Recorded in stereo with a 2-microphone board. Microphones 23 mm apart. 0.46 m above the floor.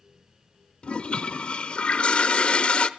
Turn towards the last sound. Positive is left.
turn(degrees=55)  # may be behind; listen again after turning